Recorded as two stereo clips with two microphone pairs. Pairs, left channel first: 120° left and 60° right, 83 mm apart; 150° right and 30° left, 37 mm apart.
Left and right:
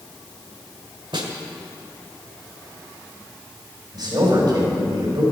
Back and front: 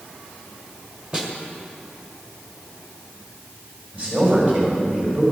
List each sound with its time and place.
1.1 s a snare drum: 40° right, 1.6 m
3.9 s a man speaking: 25° right, 3.5 m